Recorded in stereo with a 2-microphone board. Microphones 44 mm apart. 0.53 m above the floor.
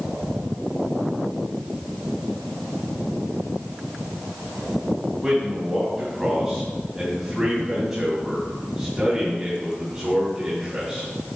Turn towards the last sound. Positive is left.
turn(degrees=-10)  # may be behind; listen again after turning